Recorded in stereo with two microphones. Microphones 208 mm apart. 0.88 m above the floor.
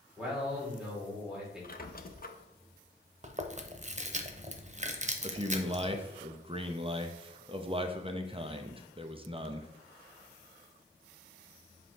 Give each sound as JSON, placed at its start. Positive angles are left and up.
{"t": 0.2, "sound": "a man speaking", "side_deg": -5, "distance_m": 3.0}
{"t": 1.6, "sound": "a squeak", "side_deg": 45, "distance_m": 0.6}
{"t": 3.2, "sound": "chewing", "side_deg": -35, "distance_m": 0.7}
{"t": 5.2, "sound": "a man speaking", "side_deg": -25, "distance_m": 0.7}